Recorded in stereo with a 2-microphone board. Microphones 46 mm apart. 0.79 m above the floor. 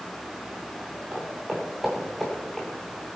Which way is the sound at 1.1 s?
20° right (ahead or behind).